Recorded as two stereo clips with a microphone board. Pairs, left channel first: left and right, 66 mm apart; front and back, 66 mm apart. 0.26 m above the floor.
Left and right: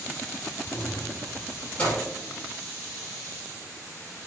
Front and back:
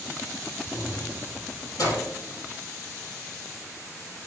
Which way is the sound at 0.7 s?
30° left.